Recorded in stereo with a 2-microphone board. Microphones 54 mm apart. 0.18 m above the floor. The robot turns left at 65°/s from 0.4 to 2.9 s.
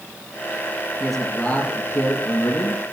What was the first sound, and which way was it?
A man speaking, 175° right.